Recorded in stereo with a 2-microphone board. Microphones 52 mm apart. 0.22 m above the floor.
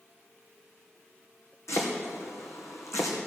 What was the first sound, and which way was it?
Chopping, 85° left.